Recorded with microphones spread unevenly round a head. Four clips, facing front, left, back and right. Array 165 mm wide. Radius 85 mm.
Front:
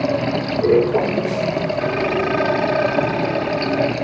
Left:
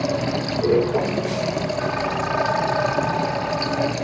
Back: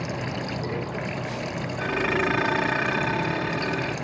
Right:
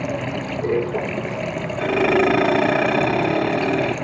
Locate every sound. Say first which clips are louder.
0.0 s running water: left 2 dB, front 11 dB; 10° left
1.8 s dishes clattering: right 6 dB, front 6 dB; 90° right